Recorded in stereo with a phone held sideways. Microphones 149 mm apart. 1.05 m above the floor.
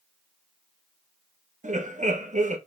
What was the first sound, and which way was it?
Laughter, 55° right (ahead or behind).